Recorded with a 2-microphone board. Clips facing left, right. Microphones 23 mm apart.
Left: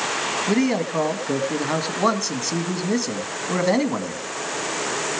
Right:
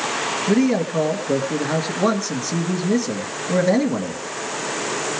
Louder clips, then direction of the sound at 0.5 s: Right 3 dB; 30° left (ahead or behind).